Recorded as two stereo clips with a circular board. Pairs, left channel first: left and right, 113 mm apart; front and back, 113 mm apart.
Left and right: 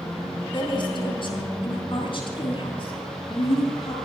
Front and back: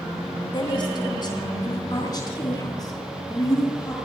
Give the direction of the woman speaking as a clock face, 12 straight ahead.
10 o'clock.